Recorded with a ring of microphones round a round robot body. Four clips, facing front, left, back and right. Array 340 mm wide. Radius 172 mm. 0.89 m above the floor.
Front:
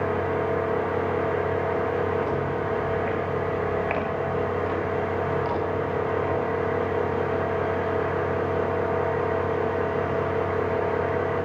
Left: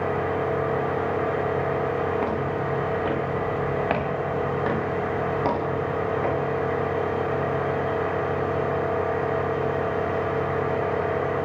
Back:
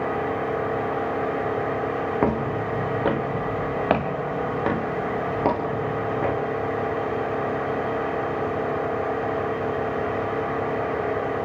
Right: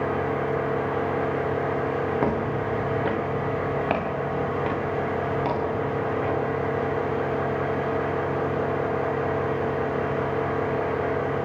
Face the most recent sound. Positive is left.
turn(degrees=160)